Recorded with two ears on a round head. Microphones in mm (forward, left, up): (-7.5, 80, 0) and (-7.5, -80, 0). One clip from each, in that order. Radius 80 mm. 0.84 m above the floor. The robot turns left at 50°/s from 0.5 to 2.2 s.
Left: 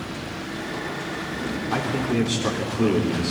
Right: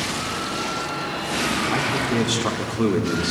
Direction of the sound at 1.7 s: 5° right (ahead or behind).